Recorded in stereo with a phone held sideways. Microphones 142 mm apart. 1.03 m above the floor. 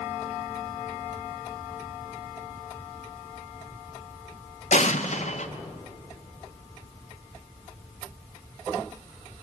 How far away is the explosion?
About 1.0 m.